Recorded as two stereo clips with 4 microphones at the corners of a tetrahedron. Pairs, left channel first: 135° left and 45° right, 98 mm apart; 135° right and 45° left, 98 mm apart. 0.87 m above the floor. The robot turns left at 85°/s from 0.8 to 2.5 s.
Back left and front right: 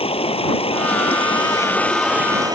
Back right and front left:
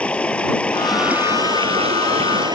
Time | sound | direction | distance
0.0 | running water | 145° left | ?